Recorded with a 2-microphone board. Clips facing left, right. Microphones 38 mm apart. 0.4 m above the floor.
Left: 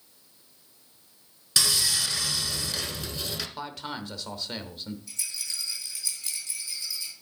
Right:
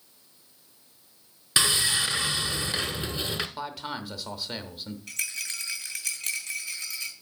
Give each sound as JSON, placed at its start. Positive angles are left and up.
{"t": 1.6, "sound": "sawing", "side_deg": -35, "distance_m": 0.9}
{"t": 3.6, "sound": "a man speaking", "side_deg": -5, "distance_m": 1.0}
{"t": 5.1, "sound": "a rattle", "side_deg": -70, "distance_m": 1.9}